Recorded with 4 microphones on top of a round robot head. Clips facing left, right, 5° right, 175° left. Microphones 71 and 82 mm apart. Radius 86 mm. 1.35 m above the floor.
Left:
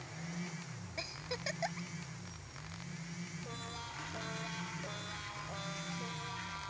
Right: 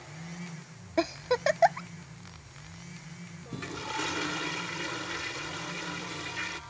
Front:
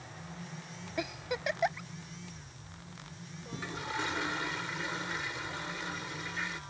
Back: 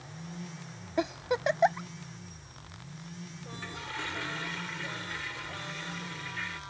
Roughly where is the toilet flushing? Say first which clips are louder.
Right 15 dB, front 3 dB; right.